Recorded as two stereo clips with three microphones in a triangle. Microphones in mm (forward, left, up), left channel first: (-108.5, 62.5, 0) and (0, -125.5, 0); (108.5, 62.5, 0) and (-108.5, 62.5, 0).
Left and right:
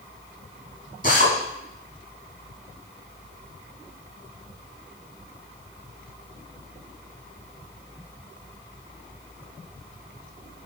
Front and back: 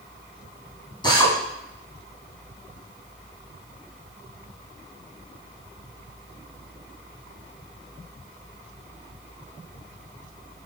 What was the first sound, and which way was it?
A drill, 70° left.